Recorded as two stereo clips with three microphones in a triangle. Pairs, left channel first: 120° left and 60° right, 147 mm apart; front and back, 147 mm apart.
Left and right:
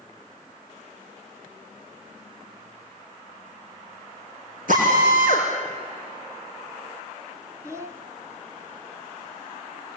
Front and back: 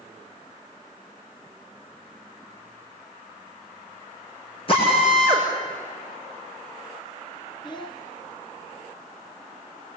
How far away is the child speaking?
About 0.7 m.